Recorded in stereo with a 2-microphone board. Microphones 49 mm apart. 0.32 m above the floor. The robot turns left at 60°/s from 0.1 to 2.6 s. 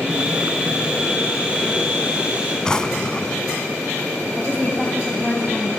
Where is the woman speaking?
5° left (ahead or behind), 2.5 m.